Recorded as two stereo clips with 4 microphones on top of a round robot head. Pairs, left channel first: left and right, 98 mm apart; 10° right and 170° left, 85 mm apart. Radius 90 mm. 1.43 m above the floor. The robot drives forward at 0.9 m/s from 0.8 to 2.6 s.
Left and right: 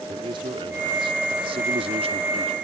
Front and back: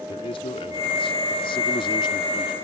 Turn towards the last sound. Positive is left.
turn(degrees=-60)